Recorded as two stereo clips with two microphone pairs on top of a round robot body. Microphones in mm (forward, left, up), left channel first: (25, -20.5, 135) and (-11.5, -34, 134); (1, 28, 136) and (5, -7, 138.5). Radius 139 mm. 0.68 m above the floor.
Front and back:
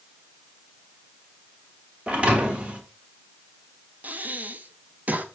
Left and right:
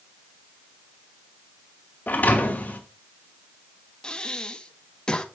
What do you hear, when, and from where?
2.1 s a thud: 140° left, 1.3 m
4.0 s breathing: 160° left, 0.8 m